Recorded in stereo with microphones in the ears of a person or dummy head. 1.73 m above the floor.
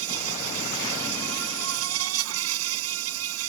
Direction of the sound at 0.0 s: 85° right.